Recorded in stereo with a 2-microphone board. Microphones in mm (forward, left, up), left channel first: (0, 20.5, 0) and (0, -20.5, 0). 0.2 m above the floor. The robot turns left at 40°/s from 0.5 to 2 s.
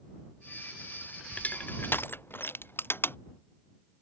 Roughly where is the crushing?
Left.